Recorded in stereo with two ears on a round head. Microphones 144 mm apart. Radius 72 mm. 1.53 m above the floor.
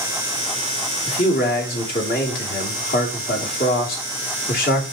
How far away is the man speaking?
About 3 m.